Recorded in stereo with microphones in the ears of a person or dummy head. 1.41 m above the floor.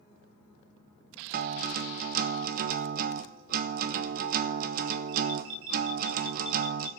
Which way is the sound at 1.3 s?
50° right (ahead or behind).